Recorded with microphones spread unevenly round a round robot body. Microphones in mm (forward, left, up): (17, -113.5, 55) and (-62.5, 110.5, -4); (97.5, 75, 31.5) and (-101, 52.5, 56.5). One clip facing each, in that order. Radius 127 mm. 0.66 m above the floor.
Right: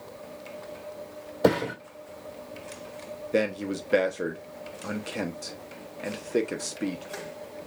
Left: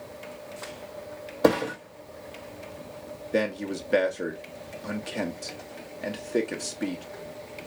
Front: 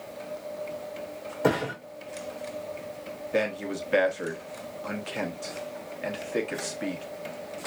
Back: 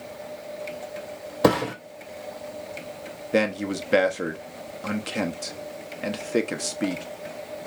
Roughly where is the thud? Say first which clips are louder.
Left 1 dB, back 5 dB; behind.